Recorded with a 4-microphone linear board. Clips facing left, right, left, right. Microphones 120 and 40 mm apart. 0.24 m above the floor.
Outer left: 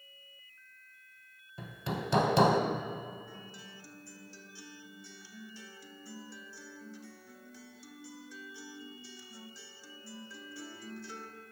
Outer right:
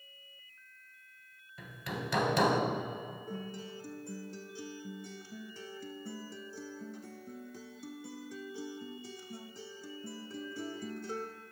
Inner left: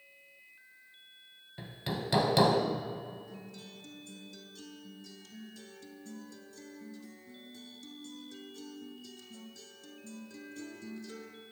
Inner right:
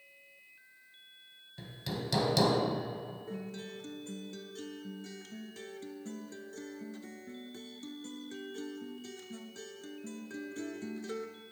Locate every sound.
1.6 s hammering: 30° left (ahead or behind), 0.7 m
3.3 s a guitar: 50° right (ahead or behind), 0.6 m